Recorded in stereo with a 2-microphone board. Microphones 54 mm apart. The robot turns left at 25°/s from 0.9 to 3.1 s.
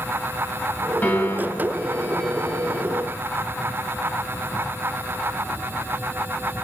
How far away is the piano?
About 3 m.